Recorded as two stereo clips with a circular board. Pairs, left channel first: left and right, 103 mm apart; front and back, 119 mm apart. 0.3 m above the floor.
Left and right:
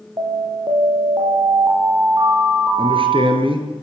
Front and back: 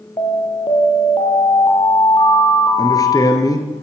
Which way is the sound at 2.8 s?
60° right.